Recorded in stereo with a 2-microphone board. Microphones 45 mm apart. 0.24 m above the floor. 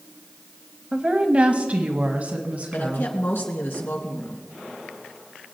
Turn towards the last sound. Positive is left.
turn(degrees=65)  # may be behind; listen again after turning